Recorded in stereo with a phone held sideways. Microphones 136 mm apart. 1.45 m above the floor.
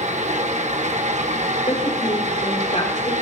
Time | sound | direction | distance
0.0 | a fan | 60° right (ahead or behind) | 1.1 m
1.7 | a woman speaking | 60° left (ahead or behind) | 4.5 m